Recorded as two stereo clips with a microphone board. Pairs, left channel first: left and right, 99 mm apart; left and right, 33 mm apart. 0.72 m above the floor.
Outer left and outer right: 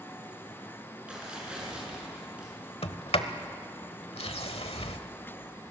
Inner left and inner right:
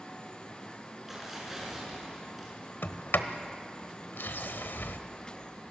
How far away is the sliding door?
About 1.1 m.